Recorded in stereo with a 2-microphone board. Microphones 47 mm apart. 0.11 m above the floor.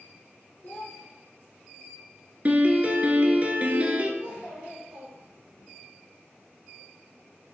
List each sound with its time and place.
0.6 s a child speaking: 30° left (ahead or behind), 0.8 m
2.5 s a piano: 35° right (ahead or behind), 0.6 m
4.2 s a child speaking: 20° right (ahead or behind), 1.5 m